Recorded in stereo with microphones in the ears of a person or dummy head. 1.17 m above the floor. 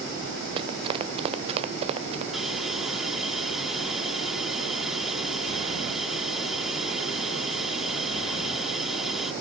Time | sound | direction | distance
0.6 | running footsteps | 30° right (ahead or behind) | ?
2.3 | a hiss | centre (ahead or behind) | ?